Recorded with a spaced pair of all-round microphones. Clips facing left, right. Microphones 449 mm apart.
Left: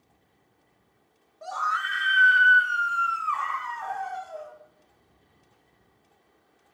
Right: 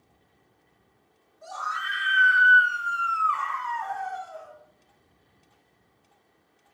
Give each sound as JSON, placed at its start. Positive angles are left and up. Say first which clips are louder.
{"t": 1.4, "sound": "a scream", "louder": "left 4 dB", "side_deg": 75, "distance_m": 1.3}